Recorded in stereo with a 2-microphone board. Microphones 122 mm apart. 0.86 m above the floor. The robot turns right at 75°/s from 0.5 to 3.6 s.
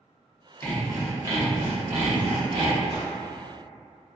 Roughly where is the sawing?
Behind.